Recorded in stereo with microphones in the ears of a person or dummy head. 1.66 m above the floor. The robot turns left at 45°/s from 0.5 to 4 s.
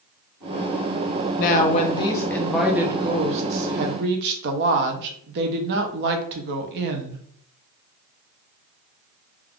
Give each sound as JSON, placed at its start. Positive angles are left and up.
{"t": 1.4, "sound": "a woman speaking", "azimuth_deg": 55, "distance_m": 0.6}